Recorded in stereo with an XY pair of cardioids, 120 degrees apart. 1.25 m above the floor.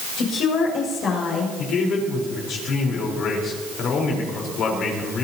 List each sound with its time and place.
0.2 s a woman speaking: 65° left, 7 m
1.6 s a man speaking: 60° left, 4.5 m